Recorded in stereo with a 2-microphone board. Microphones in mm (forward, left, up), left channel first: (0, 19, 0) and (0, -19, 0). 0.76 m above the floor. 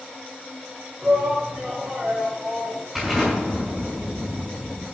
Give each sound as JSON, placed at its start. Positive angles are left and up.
{"t": 1.0, "sound": "a shout", "side_deg": -35, "distance_m": 2.5}
{"t": 3.0, "sound": "an explosion", "side_deg": -5, "distance_m": 4.5}